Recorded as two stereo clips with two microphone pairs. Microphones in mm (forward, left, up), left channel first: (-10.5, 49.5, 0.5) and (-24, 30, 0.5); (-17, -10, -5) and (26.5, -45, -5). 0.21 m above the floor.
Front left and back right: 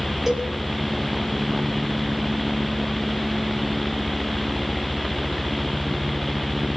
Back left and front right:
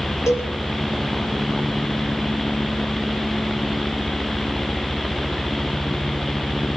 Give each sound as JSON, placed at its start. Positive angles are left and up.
{"t": 0.3, "sound": "a cowbell", "azimuth_deg": 160, "distance_m": 5.5}